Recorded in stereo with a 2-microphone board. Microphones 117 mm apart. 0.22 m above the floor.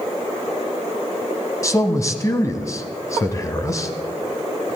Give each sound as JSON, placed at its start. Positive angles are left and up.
{"t": 1.6, "sound": "a man speaking", "side_deg": 25, "distance_m": 1.2}